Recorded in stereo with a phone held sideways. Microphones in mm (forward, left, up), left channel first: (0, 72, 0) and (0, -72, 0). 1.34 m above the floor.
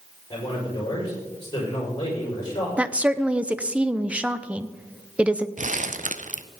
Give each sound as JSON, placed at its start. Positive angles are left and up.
{"t": 0.3, "sound": "a man speaking", "side_deg": 30, "distance_m": 6.0}
{"t": 2.8, "sound": "a woman speaking", "side_deg": -10, "distance_m": 0.6}
{"t": 5.6, "sound": "crumpling", "side_deg": -60, "distance_m": 0.6}